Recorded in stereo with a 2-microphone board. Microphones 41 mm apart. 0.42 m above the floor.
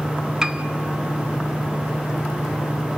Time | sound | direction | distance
0.4 | a piano | 15° right (ahead or behind) | 0.9 m